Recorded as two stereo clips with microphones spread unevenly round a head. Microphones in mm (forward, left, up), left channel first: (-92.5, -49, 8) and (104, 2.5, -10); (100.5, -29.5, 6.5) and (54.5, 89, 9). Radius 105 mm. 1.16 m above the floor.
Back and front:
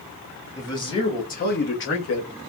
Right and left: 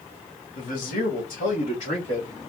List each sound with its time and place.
0.6 s a man speaking: 90° right, 1.8 m; by 2.3 s 155° right, 1.6 m